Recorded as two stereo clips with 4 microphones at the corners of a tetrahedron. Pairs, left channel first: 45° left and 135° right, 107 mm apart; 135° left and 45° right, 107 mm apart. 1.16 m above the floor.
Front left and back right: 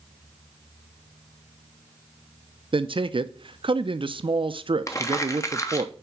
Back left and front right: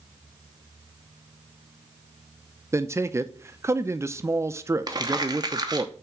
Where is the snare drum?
No snare drum in this recording.